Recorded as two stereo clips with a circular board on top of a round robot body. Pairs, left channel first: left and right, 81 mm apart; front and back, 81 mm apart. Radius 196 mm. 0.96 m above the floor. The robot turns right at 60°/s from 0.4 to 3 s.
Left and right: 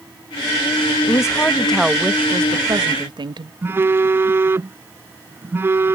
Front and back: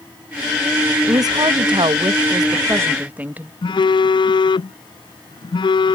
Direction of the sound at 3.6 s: 25° right.